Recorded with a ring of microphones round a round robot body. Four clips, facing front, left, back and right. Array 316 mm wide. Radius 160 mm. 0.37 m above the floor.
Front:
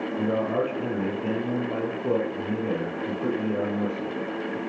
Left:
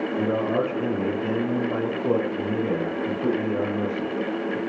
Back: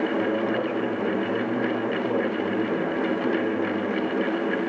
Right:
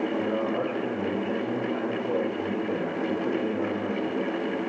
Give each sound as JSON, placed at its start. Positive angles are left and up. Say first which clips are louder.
{"t": 0.2, "sound": "a man speaking", "louder": "left 3 dB, back 1 dB", "azimuth_deg": 65, "distance_m": 8.0}